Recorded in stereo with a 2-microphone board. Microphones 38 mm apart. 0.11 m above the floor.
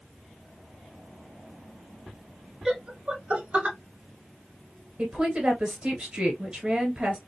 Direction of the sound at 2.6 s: 15° right (ahead or behind).